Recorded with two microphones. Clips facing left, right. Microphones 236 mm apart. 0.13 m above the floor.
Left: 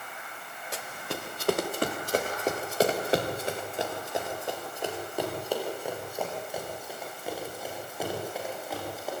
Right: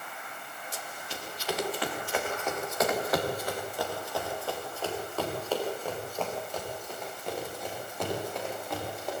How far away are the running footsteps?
About 2.5 m.